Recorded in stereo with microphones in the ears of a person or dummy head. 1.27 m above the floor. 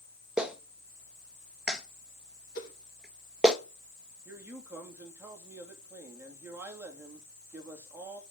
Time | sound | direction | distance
0.4 | a clap | 5° right (ahead or behind) | 1.0 m
2.5 | a whoosh | 50° left (ahead or behind) | 3.5 m
4.2 | a man speaking | 15° right (ahead or behind) | 2.5 m